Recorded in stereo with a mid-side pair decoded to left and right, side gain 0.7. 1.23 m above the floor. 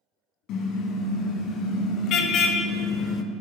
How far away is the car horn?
About 3.5 m.